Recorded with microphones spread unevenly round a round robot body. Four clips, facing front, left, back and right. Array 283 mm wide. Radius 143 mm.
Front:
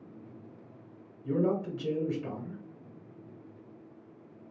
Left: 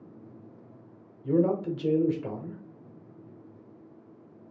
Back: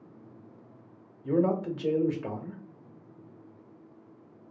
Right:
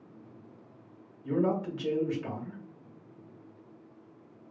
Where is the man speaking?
135° left, 0.9 m.